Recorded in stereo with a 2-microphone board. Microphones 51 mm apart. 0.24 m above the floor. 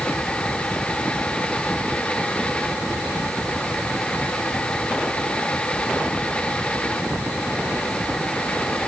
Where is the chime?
No chime in this recording.